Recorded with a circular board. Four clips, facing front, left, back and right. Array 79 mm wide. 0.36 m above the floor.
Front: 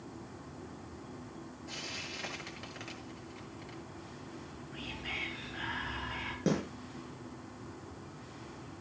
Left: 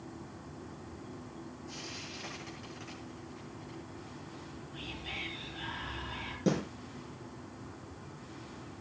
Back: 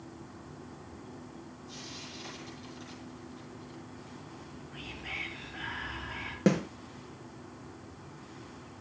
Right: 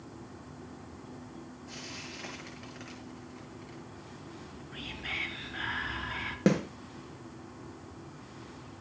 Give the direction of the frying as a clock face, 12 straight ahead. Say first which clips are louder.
Right 1 dB, front 2 dB; 1 o'clock.